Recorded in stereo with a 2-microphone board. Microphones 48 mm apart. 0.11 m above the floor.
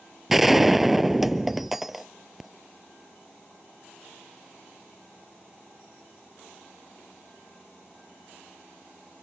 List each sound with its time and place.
0.3 s a gunshot: 5° right (ahead or behind)